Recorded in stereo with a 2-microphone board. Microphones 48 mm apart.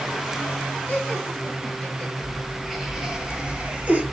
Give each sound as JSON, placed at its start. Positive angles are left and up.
{"t": 0.9, "sound": "laughter", "side_deg": 25, "distance_m": 2.5}